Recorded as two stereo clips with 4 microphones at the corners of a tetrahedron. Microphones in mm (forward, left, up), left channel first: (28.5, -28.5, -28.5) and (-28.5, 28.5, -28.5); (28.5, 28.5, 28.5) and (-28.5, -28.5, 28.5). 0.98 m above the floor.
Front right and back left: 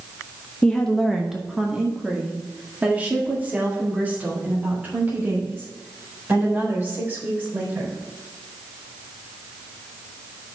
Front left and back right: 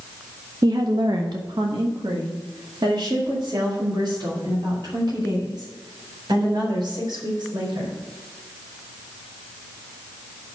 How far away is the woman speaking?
About 0.6 m.